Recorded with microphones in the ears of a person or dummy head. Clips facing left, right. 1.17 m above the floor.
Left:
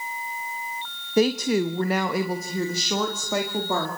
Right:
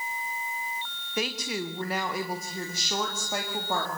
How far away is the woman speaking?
About 0.7 m.